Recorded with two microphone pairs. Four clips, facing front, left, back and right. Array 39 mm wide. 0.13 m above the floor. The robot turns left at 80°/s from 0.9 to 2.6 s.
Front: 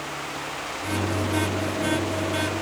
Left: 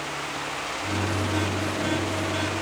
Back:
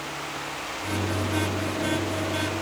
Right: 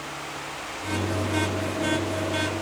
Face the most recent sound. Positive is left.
No sound to turn to.